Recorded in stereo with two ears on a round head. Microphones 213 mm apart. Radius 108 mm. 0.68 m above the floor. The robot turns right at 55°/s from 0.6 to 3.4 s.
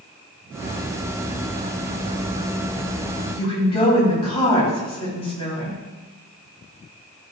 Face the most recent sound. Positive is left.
turn(degrees=25)  # may be behind; listen again after turning